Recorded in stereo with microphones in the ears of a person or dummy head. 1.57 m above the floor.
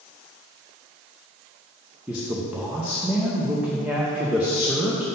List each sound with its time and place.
2.1 s a man speaking: 5° right (ahead or behind), 0.6 m